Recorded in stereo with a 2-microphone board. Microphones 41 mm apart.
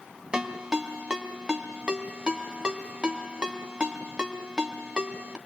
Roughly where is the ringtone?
Right.